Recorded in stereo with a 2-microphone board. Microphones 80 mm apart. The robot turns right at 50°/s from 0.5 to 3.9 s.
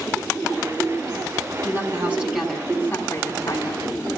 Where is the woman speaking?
45° right, 4.5 m; by 4.0 s 70° left, 4.5 m.